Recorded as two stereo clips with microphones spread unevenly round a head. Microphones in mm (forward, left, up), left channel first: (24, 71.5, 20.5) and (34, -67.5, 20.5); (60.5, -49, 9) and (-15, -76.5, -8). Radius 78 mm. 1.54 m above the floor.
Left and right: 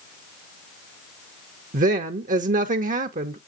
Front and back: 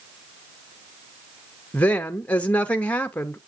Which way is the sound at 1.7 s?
55° right.